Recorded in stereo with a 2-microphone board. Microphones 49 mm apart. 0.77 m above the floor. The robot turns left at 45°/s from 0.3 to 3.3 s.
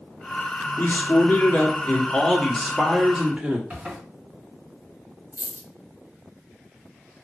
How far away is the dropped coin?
About 0.8 m.